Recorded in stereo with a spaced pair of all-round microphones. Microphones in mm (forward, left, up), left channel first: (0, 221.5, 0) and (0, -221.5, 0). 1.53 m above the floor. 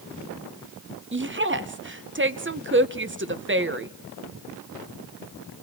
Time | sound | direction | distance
1.1 | a woman speaking | 30° right (ahead or behind) | 0.8 m